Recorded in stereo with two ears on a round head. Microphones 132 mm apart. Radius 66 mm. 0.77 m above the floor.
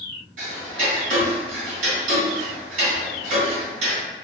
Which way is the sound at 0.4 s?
50° right (ahead or behind).